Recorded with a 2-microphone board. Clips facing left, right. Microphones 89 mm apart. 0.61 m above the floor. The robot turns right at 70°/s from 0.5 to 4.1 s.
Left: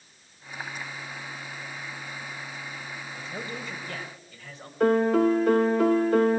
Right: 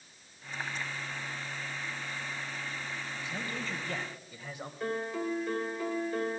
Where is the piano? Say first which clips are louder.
Left 14 dB; 75° left (ahead or behind), 0.6 m.